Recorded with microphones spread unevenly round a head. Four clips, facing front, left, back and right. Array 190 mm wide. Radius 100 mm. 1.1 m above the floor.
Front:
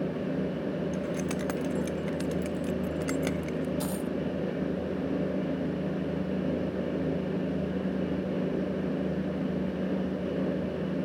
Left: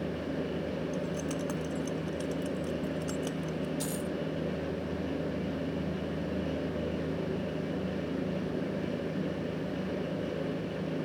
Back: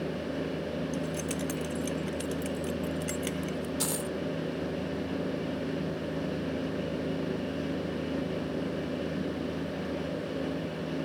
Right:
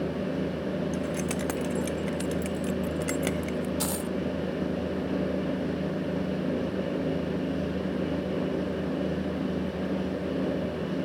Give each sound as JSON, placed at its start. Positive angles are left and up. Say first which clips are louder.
{"t": 0.9, "sound": "keys jangling", "louder": "right 4 dB, front 2 dB", "azimuth_deg": -70}
{"t": 3.8, "sound": "a dropped coin", "louder": "right 4 dB, front 2 dB", "azimuth_deg": -120}